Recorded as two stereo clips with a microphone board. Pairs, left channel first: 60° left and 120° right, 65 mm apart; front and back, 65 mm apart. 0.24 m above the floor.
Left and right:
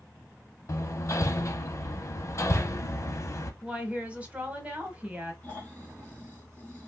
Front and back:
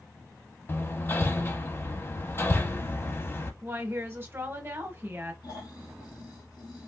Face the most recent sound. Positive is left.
turn(degrees=-5)